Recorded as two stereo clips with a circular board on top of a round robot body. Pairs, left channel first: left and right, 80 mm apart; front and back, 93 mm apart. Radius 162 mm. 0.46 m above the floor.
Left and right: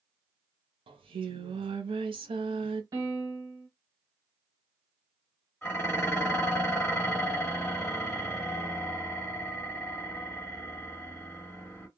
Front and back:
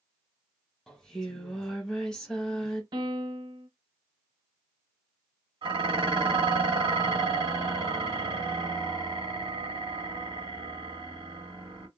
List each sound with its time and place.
0.9 s singing: 85° right, 0.6 m
2.9 s a piano: 140° right, 0.9 m
5.6 s dishes clattering: 155° left, 1.4 m